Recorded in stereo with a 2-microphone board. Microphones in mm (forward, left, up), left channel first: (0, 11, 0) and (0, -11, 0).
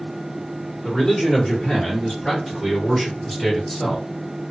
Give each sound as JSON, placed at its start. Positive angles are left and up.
{"t": 0.8, "sound": "a man speaking", "side_deg": 35, "distance_m": 2.0}